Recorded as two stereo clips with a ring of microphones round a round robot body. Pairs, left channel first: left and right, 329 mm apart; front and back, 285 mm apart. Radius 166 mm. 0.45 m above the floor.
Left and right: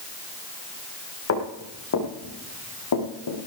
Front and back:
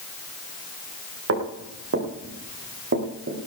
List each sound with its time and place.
1.3 s footsteps: 140° left, 5.5 m; by 3.4 s 125° left, 5 m